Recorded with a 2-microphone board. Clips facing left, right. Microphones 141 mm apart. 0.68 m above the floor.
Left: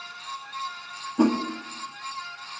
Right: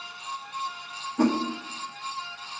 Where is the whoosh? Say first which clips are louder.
Left 2 dB; 10° left (ahead or behind), 0.8 m.